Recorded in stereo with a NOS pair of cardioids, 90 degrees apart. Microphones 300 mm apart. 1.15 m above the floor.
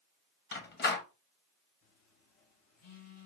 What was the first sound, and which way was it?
A door slam, 35° left.